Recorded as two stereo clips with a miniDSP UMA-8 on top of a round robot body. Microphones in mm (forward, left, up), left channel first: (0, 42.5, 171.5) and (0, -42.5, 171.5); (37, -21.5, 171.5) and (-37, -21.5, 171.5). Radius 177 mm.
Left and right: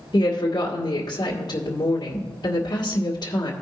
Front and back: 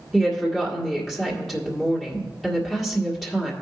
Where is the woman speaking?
85° left, 1.9 m.